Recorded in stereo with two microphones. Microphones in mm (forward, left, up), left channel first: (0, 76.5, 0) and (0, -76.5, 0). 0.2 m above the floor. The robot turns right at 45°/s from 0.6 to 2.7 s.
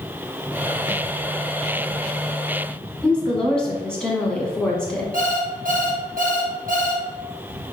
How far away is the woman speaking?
About 1.3 m.